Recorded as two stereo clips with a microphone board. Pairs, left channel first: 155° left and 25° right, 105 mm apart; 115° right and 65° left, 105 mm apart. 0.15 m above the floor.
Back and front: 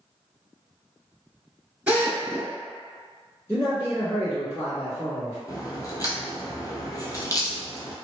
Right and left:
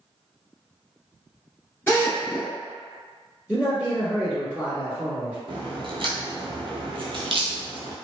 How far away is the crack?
About 0.7 m.